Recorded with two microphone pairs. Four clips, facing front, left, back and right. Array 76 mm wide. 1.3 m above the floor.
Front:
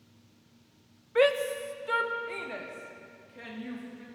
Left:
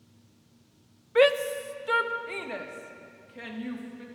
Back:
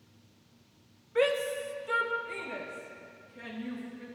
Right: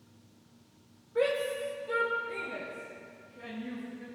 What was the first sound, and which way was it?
A shout, 70° left.